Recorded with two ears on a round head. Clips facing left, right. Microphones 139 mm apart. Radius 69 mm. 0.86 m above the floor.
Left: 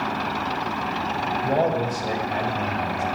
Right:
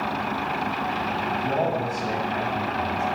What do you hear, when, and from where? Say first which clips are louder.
1.4 s a man speaking: left 4 dB; 45° left (ahead or behind), 5 m